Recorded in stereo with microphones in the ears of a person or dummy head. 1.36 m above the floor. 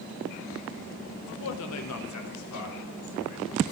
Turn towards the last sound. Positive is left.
turn(degrees=60)  # may be behind; listen again after turning